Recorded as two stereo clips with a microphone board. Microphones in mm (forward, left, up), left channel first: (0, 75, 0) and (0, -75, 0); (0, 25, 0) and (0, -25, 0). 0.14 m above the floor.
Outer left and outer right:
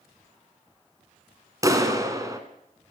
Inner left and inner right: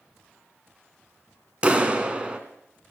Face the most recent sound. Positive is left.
turn(degrees=-25)  # may be behind; listen again after turning